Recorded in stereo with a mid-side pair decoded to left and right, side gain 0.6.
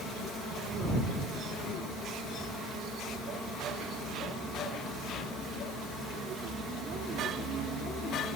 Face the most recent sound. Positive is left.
No sound to turn to.